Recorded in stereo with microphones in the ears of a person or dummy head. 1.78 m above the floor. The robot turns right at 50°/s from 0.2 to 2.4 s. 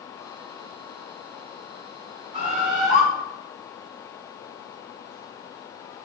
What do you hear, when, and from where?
2.3 s a bird: 25° right (ahead or behind), 1.8 m; by 3.0 s 30° right (ahead or behind), 1.8 m